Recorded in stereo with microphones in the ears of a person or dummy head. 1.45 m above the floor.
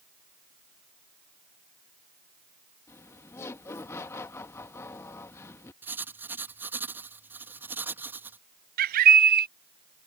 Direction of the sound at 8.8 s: 50° right (ahead or behind).